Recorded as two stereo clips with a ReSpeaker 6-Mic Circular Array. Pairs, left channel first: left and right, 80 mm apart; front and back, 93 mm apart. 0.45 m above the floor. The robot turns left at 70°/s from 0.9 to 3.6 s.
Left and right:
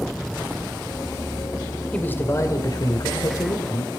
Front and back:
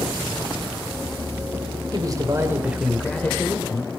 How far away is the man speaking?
About 1.9 m.